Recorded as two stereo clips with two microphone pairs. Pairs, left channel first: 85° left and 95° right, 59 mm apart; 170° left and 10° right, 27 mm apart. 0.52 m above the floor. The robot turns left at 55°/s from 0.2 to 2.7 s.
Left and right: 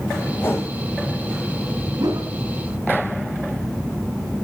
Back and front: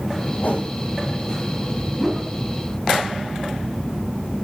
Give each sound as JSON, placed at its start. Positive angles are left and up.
{"t": 0.4, "sound": "a whoosh", "azimuth_deg": 140, "distance_m": 6.0}
{"t": 2.0, "sound": "a whoosh", "azimuth_deg": -90, "distance_m": 3.5}